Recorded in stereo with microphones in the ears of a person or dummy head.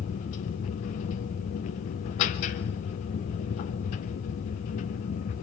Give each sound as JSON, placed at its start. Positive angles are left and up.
{"t": 0.0, "sound": "a machine running", "side_deg": 40, "distance_m": 0.7}